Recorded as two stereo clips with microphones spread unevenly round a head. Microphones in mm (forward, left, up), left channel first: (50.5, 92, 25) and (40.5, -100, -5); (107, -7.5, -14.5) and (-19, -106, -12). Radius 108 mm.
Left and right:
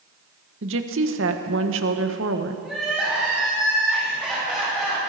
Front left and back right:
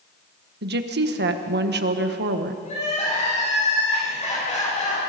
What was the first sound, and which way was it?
A woman speaking, 130° right.